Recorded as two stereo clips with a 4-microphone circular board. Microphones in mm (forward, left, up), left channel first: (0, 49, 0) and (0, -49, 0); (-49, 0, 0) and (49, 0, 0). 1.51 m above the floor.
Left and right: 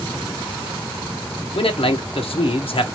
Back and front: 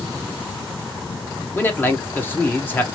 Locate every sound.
1.6 s a man speaking: 110° left, 1.2 m